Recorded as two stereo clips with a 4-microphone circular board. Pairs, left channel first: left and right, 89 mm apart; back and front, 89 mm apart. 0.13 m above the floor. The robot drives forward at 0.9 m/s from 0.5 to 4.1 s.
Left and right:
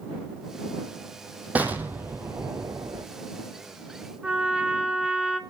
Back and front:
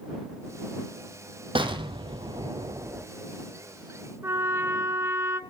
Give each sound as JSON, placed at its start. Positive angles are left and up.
{"t": 1.6, "sound": "an explosion", "azimuth_deg": -15, "distance_m": 1.6}
{"t": 4.2, "sound": "a trumpet", "azimuth_deg": -20, "distance_m": 0.7}